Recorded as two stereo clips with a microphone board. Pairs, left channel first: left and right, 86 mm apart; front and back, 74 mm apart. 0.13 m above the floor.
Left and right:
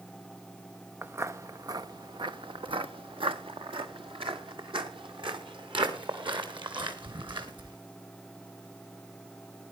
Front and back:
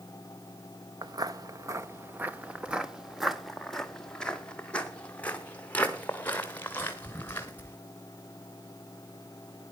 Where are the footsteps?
155° right, 1.0 m; by 7.8 s 60° right, 3.5 m.